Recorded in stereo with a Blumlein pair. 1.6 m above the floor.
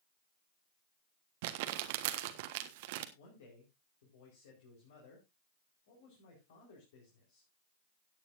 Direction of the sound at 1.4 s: 50° right.